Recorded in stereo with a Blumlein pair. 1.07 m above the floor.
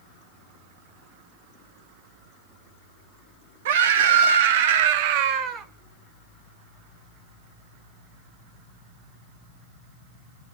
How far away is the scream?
About 1.8 m.